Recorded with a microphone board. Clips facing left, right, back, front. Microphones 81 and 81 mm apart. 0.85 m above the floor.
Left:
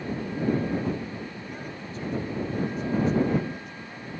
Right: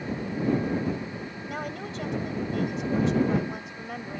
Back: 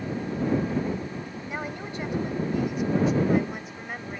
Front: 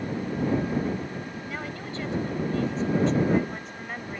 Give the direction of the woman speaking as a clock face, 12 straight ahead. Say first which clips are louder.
Right 3 dB, back 4 dB; 4 o'clock.